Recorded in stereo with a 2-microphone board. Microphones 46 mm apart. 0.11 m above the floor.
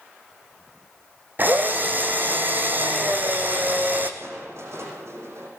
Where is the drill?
45° right (ahead or behind), 2.5 m.